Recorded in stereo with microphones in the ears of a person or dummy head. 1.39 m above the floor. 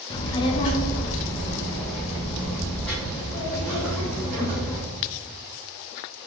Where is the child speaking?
25° left (ahead or behind), 0.6 m; by 4.8 s centre (ahead or behind), 2 m.